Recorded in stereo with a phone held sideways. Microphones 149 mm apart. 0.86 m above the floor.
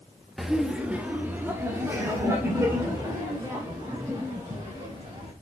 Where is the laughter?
Centre (ahead or behind), 0.9 m; by 5.3 s 25° right (ahead or behind), 4.5 m.